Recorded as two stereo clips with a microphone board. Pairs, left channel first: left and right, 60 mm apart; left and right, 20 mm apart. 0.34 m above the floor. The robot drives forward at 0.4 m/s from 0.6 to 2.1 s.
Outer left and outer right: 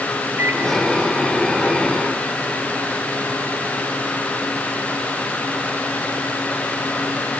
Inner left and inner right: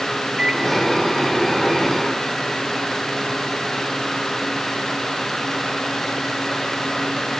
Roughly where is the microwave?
Right.